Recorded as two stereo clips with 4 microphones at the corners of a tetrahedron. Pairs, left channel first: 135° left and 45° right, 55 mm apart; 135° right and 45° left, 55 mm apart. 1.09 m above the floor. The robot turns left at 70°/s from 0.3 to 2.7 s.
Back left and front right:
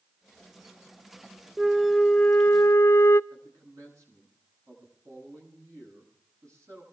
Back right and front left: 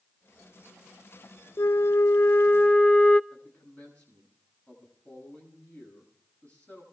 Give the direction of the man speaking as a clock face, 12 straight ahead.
2 o'clock.